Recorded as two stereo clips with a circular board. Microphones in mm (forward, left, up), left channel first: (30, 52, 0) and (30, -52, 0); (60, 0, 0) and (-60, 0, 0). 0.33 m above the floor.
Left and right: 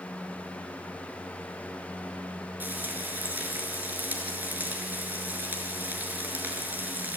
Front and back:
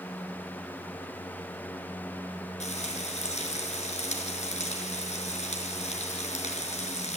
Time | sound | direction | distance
2.6 | frying | 20° right | 5.5 m